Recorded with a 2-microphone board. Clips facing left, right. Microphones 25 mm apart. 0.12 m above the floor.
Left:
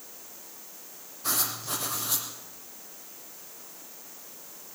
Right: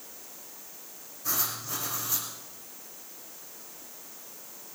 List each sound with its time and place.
1.2 s writing: 55° left (ahead or behind), 5 m